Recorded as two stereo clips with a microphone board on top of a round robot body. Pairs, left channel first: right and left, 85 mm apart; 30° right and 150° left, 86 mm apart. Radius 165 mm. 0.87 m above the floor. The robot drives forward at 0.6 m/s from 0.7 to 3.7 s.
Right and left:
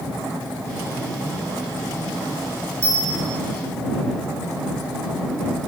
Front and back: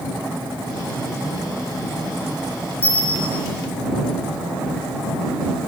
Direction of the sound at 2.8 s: 35° left.